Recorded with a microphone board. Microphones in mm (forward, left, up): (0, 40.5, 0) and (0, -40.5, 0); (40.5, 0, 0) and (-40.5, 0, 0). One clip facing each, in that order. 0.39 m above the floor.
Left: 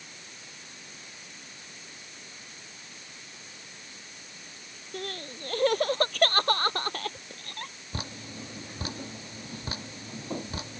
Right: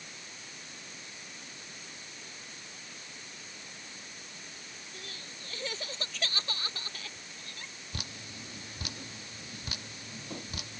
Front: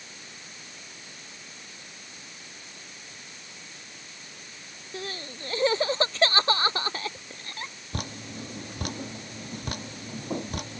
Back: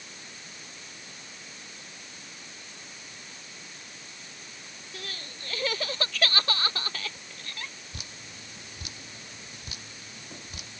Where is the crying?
60° left.